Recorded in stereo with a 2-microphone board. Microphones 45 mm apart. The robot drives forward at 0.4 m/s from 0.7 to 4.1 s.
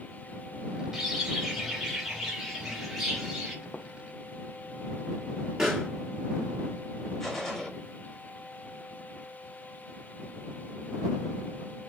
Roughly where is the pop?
Centre.